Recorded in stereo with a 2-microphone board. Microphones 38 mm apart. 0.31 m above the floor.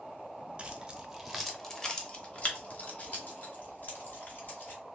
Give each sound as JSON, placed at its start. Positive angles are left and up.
{"t": 0.6, "sound": "keys jangling", "side_deg": -30, "distance_m": 0.8}